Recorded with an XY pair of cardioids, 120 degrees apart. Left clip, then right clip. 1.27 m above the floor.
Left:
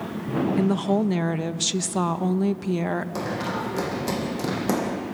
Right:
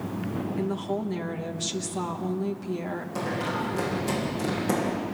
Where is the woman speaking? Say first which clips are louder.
Left 5 dB; 50° left, 1.1 m.